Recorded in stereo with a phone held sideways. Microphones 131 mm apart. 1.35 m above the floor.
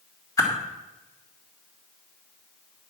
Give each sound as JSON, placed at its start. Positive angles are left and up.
{"t": 0.4, "sound": "a whoosh", "side_deg": 25, "distance_m": 2.5}